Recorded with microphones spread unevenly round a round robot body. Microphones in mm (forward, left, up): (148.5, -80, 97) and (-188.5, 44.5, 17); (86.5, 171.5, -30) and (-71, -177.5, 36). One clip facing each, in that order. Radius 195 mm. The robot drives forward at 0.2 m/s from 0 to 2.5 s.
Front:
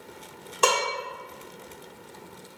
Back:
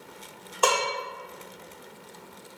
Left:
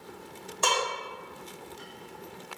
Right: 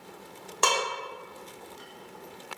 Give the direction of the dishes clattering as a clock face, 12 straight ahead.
3 o'clock.